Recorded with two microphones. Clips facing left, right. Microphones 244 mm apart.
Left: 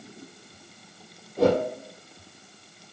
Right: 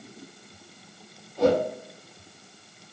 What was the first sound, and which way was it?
A whoosh, 70° left (ahead or behind).